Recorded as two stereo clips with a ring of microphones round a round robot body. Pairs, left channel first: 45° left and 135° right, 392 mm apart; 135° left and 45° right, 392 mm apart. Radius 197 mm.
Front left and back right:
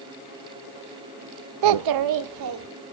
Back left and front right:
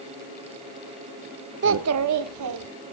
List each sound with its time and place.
1.6 s a child speaking: 110° right, 0.5 m; by 2.7 s 90° right, 1.9 m